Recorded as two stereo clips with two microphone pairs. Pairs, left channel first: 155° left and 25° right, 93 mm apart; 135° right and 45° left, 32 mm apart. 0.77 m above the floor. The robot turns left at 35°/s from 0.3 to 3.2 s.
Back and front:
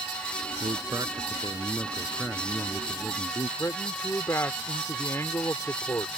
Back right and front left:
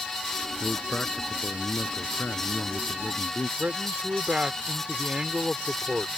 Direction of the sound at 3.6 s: 95° left.